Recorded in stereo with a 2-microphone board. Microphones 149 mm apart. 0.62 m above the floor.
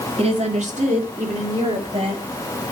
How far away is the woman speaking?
About 1.3 m.